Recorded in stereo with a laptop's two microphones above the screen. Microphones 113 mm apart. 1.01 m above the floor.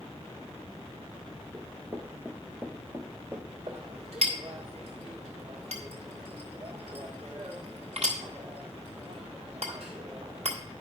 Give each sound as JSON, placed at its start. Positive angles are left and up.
{"t": 1.5, "sound": "running footsteps", "side_deg": -15, "distance_m": 1.0}
{"t": 3.7, "sound": "a clink", "side_deg": -70, "distance_m": 1.7}